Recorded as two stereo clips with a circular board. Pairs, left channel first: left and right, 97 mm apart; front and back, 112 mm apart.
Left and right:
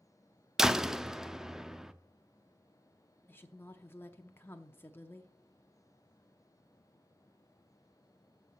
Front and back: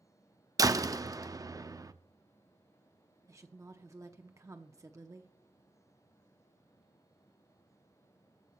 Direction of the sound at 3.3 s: 140° left.